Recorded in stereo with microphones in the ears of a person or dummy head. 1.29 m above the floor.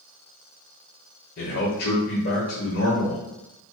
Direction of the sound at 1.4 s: 45° left (ahead or behind).